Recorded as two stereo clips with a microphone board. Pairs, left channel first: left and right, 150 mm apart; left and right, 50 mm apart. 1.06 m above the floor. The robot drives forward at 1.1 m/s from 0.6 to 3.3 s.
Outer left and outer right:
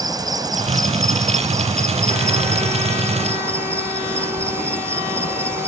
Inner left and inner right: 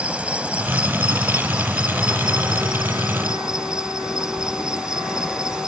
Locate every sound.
0.0 s an insect: 25° right (ahead or behind); by 5.7 s 15° right (ahead or behind)